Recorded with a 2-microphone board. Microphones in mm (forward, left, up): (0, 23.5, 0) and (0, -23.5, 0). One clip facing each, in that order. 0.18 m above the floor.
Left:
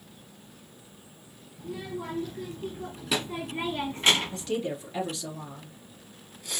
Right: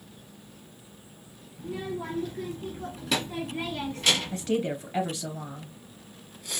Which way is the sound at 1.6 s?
15° right (ahead or behind).